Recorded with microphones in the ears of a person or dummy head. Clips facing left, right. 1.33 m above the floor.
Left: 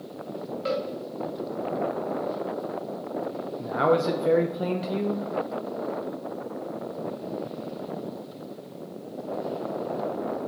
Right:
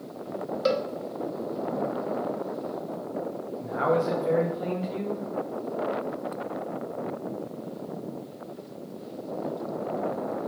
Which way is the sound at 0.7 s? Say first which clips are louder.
Right 3 dB; 55° right (ahead or behind).